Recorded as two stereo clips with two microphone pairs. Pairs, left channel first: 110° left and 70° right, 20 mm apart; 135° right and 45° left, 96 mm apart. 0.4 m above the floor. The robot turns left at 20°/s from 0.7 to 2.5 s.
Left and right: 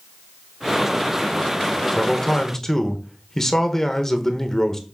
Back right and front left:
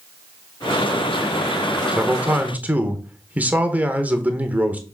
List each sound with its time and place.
1.9 s a man speaking: 100° left, 1.0 m; by 4.8 s 90° left, 1.0 m